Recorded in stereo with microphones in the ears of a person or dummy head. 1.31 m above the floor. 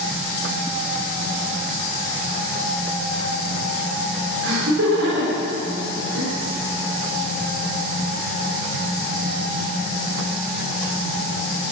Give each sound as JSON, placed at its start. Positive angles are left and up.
{"t": 4.4, "sound": "laughter", "side_deg": -75, "distance_m": 3.5}